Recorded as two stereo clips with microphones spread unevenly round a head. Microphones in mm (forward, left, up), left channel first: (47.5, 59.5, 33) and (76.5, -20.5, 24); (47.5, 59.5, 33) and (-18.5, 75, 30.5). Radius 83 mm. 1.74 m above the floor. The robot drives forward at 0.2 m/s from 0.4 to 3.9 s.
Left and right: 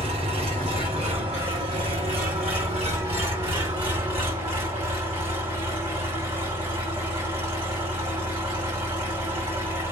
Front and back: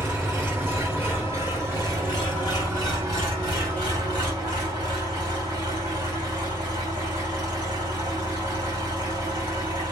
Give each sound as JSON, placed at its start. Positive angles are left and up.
{"t": 0.0, "sound": "an engine running", "azimuth_deg": -110, "distance_m": 1.3}